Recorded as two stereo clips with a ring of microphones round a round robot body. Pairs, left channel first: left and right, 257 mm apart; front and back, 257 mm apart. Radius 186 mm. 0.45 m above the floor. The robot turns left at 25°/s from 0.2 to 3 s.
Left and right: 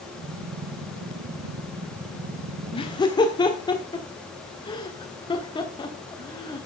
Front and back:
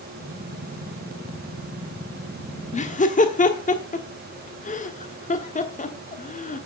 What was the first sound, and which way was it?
Laughter, 35° left.